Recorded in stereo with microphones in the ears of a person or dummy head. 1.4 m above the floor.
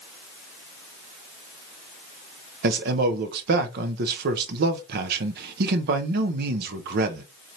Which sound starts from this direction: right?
A man speaking, at 2.6 s.